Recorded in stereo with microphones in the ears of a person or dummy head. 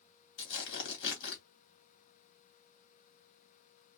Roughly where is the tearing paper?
Left.